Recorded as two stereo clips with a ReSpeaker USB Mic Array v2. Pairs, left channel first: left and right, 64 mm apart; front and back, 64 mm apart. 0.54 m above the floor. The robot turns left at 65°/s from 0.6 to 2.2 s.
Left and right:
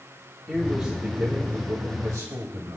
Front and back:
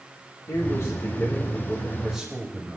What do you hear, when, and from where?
0.5 s a man speaking: 5° left, 2 m; by 2.8 s 100° right, 2 m